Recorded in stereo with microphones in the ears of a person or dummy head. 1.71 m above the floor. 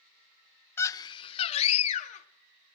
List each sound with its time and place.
0.8 s a scream: 15° left (ahead or behind), 0.6 m; by 2.3 s 40° left (ahead or behind), 1.7 m